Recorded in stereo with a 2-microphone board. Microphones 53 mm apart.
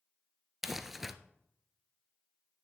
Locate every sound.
0.6 s crumpling: 5° right (ahead or behind), 0.7 m